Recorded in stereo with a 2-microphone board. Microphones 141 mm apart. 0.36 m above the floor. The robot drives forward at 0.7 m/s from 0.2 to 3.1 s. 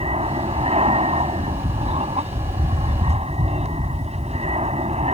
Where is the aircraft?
45° right (ahead or behind); by 5.2 s 50° right (ahead or behind).